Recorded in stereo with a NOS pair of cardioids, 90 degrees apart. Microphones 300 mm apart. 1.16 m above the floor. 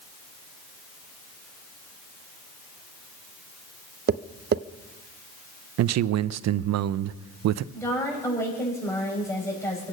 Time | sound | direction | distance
4.1 | tapping | 35° right | 0.5 m
5.8 | a man speaking | 60° right | 0.6 m
7.7 | a woman speaking | 10° left | 6.5 m